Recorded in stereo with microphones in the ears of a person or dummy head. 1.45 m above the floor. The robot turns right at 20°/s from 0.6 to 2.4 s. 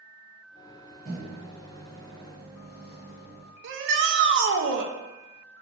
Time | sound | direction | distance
1.1 | a microwave | 35° right (ahead or behind) | 1.0 m
3.6 | a shout | 70° right (ahead or behind) | 0.5 m